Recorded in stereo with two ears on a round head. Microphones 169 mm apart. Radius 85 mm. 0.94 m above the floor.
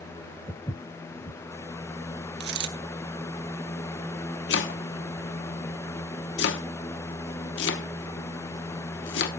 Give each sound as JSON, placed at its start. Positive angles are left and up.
{"t": 0.5, "sound": "footsteps", "side_deg": 20, "distance_m": 1.3}
{"t": 2.4, "sound": "a dropped coin", "side_deg": -65, "distance_m": 1.0}
{"t": 4.5, "sound": "chopping", "side_deg": 70, "distance_m": 1.1}